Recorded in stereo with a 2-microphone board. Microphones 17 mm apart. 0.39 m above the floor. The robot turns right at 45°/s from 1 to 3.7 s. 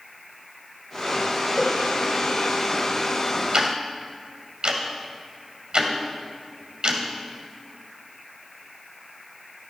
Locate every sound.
1.6 s a cowbell: centre (ahead or behind), 1.8 m; by 1.8 s 10° right (ahead or behind), 1.8 m
3.5 s ticking: 55° right (ahead or behind), 2.0 m